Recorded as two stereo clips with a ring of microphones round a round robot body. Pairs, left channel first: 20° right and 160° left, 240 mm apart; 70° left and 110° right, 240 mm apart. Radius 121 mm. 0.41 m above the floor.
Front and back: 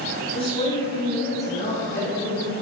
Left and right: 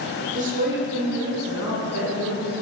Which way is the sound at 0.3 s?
70° right.